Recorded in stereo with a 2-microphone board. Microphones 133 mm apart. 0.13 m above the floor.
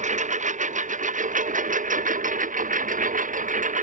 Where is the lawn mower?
65° right (ahead or behind); by 3.8 s 75° right (ahead or behind).